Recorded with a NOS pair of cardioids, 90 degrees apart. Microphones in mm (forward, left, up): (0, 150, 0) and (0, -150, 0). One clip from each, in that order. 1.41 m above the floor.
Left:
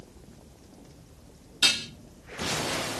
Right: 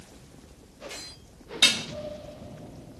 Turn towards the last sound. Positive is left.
turn(degrees=-40)